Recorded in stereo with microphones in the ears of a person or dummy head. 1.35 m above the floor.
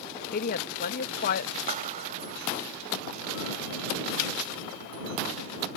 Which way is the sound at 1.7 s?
35° right (ahead or behind).